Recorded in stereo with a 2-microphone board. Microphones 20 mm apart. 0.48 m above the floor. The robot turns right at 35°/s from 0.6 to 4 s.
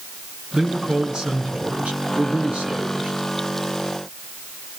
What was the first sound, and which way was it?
A man speaking, 150° right.